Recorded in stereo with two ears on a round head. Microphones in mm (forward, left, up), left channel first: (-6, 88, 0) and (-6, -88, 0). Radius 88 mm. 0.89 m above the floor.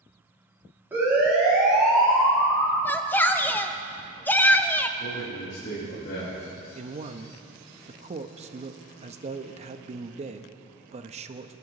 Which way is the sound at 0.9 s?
10° right (ahead or behind).